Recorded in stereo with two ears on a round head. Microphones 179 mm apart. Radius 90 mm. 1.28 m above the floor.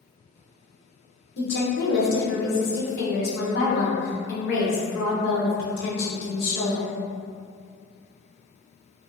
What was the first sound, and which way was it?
A woman speaking, 60° left (ahead or behind).